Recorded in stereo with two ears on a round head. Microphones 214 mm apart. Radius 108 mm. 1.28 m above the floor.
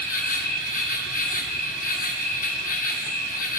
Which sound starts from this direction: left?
An insect, at 0.0 s.